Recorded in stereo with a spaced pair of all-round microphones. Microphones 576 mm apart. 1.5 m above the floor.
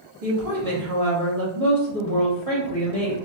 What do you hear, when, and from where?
0.2 s a woman speaking: 80° right, 1.7 m